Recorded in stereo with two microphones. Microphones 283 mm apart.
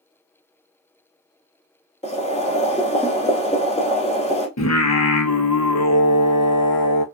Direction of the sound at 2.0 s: 25° left (ahead or behind).